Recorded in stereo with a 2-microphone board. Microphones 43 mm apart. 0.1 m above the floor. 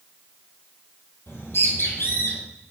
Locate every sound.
1.3 s a bird: 65° left (ahead or behind), 2 m